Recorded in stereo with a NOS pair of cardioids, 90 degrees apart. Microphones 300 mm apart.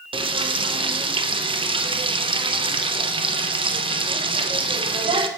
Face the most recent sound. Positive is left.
turn(degrees=-15)